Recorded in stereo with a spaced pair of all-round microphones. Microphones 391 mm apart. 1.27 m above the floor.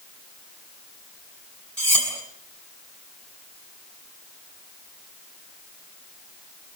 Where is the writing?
I don't hear writing.